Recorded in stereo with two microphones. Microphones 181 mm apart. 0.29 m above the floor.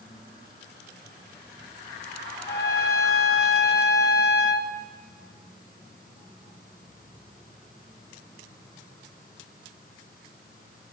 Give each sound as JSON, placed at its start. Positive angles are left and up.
{"t": 2.5, "sound": "a trumpet", "side_deg": 55, "distance_m": 0.6}